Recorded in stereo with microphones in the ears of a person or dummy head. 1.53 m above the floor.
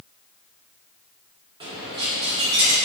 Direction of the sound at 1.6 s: 25° right (ahead or behind).